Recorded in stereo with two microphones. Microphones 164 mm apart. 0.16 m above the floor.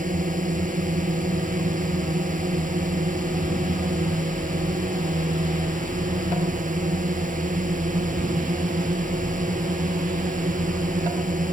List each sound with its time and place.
0.0 s a drone: 55° right (ahead or behind)